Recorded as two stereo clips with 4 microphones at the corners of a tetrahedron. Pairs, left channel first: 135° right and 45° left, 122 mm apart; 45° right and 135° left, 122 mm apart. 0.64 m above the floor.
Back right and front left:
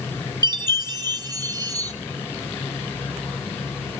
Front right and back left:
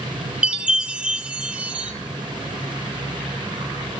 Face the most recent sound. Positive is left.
turn(degrees=60)